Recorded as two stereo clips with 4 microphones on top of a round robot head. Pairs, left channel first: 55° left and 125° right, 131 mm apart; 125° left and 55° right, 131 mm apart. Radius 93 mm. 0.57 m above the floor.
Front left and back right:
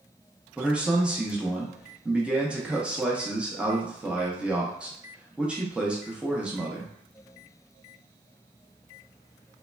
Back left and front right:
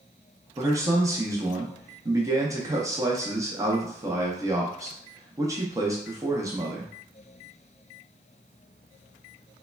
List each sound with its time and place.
0.6 s a man speaking: 55° right, 0.6 m